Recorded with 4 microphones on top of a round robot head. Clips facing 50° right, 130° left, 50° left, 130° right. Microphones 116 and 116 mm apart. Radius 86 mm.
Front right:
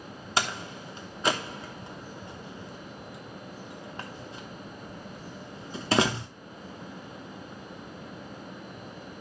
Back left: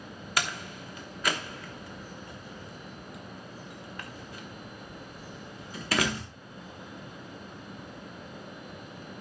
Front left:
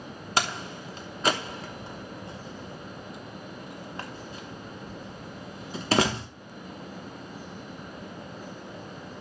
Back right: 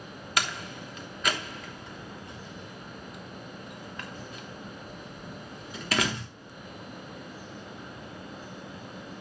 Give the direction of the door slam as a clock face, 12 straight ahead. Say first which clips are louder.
Front right 3 dB, front left 3 dB; 12 o'clock.